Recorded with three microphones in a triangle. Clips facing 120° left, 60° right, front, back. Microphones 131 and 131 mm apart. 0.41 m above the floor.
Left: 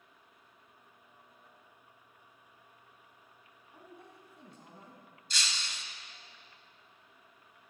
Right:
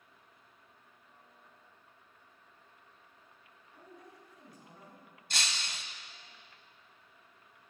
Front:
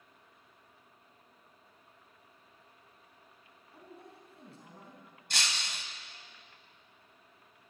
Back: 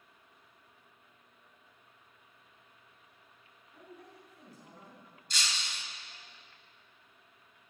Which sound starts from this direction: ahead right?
Breaking glass, at 5.3 s.